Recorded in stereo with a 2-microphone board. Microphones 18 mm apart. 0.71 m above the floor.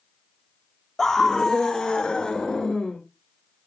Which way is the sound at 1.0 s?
25° left (ahead or behind).